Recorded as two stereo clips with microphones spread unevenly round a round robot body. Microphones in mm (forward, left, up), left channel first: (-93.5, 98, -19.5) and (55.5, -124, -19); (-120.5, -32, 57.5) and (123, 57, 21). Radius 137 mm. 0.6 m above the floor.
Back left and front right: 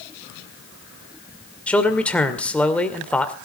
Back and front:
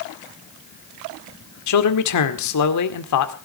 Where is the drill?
I don't hear a drill.